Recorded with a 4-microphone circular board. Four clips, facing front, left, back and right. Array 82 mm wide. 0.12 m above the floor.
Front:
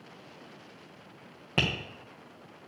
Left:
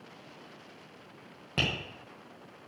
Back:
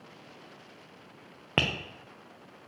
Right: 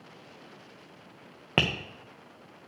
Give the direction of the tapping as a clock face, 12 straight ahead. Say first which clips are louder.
Right 5 dB, back 1 dB; 4 o'clock.